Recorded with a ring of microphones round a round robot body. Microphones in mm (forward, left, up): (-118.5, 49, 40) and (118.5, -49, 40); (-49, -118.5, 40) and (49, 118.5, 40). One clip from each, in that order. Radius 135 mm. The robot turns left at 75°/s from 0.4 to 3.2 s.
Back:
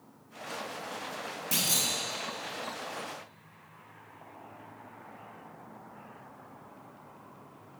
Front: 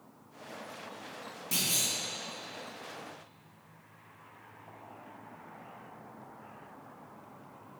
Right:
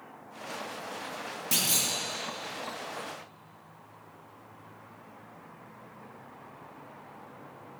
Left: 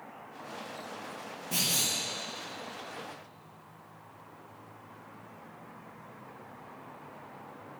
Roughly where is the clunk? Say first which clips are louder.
Back 2 dB, right 1 dB; behind right.